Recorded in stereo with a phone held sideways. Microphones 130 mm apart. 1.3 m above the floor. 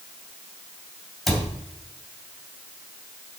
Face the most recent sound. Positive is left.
turn(degrees=0)  # may be behind; listen again after turning